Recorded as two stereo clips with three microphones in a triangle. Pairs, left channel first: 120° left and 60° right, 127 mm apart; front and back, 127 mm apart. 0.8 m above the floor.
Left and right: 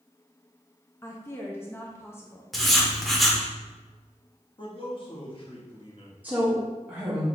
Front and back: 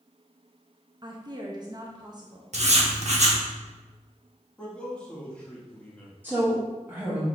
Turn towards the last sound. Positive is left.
turn(degrees=-125)